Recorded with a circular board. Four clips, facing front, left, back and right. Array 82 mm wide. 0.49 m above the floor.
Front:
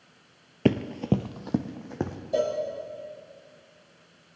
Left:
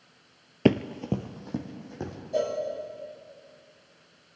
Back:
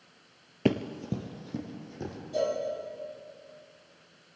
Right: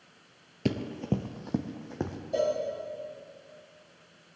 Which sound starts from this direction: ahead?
A cowbell, at 2.3 s.